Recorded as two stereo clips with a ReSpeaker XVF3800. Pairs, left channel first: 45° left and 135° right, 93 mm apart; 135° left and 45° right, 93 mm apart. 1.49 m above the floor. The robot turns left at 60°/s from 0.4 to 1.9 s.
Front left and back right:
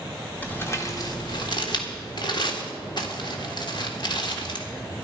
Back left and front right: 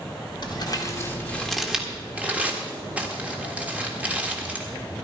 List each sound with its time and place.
0.4 s crumpling: 115° left, 1.6 m; by 4.7 s 25° left, 1.6 m